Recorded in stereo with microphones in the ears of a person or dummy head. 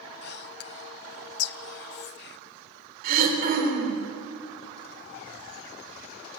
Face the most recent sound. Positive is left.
turn(degrees=-55)  # may be behind; listen again after turning